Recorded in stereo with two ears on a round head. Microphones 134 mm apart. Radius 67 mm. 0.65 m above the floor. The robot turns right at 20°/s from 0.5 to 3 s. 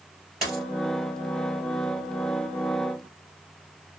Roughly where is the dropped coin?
Centre.